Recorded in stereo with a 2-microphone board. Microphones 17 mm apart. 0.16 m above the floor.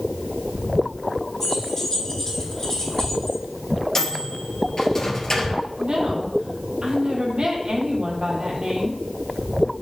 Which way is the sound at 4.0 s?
30° left (ahead or behind).